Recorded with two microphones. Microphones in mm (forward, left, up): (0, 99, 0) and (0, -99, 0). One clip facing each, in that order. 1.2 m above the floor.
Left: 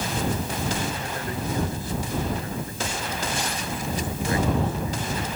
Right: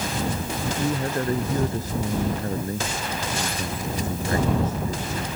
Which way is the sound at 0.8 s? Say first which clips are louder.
Right 6 dB; 45° right (ahead or behind).